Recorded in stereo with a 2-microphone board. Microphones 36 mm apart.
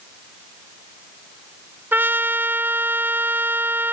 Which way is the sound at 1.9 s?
80° right.